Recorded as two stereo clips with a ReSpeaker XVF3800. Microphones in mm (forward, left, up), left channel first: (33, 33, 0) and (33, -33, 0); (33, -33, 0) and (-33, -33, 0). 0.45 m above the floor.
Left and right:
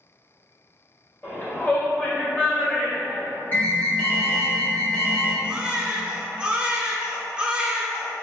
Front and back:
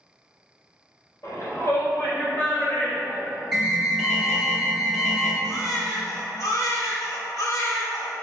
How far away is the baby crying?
About 0.5 m.